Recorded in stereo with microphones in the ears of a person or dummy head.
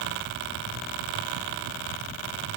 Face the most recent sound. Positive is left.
No sound to turn to.